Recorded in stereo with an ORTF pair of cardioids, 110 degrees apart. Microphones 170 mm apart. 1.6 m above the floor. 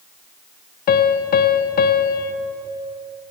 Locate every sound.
0.9 s a piano: 65° left, 1.0 m